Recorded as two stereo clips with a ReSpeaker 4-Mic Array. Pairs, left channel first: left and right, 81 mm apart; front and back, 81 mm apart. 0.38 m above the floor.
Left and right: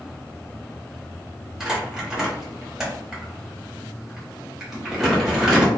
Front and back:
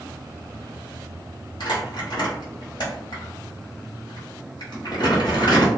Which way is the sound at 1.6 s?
5° right.